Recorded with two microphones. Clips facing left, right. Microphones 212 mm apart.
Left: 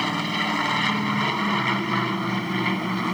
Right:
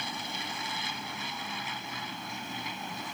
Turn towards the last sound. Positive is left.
turn(degrees=75)  # may be behind; listen again after turning